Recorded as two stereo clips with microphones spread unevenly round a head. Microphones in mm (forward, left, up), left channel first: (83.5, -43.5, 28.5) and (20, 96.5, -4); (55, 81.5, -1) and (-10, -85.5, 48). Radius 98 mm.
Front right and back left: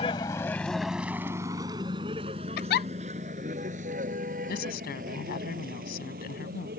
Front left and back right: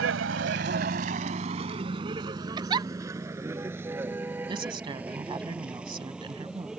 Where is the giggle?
40° right.